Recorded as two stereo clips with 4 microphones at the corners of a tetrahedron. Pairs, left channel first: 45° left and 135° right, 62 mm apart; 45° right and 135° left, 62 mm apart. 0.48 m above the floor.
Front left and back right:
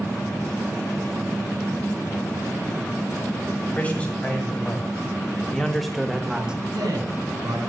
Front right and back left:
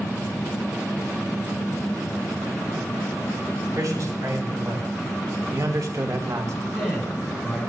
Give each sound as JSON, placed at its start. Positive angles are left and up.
{"t": 3.8, "sound": "a man speaking", "azimuth_deg": 110, "distance_m": 3.5}
{"t": 6.7, "sound": "a man speaking", "azimuth_deg": -140, "distance_m": 4.5}